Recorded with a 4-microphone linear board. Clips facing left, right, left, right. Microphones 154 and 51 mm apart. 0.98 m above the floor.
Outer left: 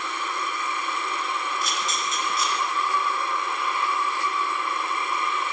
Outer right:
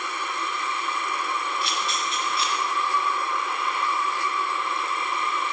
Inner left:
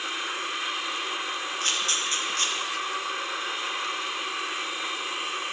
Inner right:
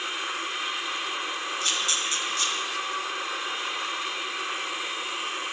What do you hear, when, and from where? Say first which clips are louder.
1.6 s a camera shutter: even, inner left 1 dB; 45° left (ahead or behind), 1.2 m